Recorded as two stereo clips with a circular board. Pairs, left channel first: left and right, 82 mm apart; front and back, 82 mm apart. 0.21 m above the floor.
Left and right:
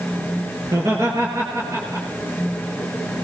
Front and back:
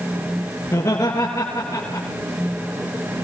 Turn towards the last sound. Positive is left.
turn(degrees=-40)